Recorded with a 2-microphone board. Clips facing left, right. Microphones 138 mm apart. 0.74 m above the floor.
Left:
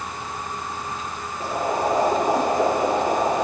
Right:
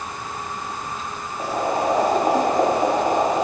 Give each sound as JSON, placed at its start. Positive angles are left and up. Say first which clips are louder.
{"t": 1.4, "sound": "boiling", "louder": "right 1 dB", "side_deg": -85, "distance_m": 4.0}